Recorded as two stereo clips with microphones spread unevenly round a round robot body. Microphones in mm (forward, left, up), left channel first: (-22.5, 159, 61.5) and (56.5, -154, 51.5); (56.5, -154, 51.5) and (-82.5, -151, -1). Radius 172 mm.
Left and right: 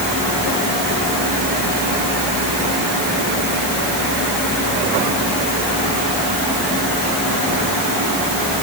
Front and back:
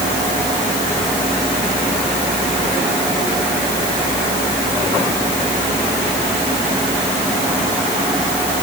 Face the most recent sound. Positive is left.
No sound to turn to.